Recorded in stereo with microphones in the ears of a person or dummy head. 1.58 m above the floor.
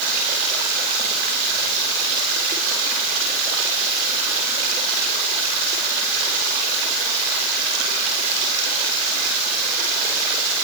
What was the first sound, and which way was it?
Only background noise.